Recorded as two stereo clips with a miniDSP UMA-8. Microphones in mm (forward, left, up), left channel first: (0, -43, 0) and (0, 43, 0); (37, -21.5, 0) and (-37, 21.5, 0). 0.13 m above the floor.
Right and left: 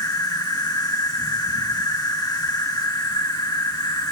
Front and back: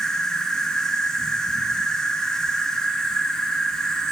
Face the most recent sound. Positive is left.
turn(degrees=-110)